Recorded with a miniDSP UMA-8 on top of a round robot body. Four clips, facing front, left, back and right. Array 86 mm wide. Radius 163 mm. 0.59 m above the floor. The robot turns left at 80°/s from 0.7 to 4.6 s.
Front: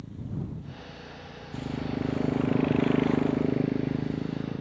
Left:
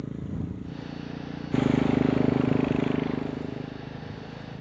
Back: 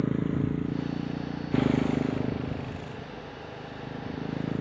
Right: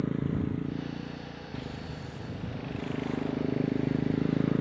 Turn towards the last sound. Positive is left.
turn(degrees=-110)